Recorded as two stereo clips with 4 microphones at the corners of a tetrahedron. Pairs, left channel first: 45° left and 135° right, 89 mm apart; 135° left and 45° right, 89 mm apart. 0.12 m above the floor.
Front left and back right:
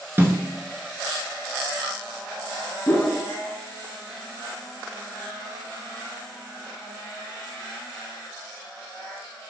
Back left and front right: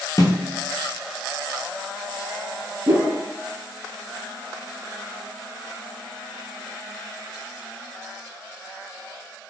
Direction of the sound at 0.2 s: 165° left.